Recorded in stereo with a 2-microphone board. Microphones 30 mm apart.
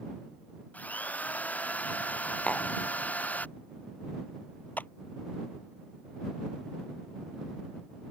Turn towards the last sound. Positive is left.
turn(degrees=70)  # may be behind; listen again after turning